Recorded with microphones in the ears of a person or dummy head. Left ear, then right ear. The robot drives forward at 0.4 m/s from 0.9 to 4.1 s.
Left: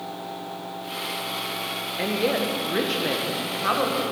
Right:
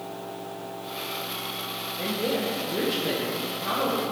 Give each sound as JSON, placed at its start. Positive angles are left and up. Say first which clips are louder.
{"t": 2.0, "sound": "a woman speaking", "louder": "left 4 dB", "side_deg": 60, "distance_m": 1.2}